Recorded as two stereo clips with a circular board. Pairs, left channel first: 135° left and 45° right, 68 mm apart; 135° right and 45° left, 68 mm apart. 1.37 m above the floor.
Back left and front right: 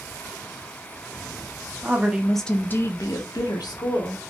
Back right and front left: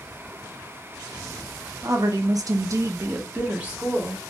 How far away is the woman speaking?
About 0.6 m.